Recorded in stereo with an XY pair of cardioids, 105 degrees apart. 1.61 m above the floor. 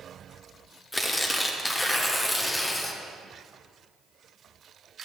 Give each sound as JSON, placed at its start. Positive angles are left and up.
{"t": 0.9, "sound": "tearing paper", "azimuth_deg": 20, "distance_m": 1.3}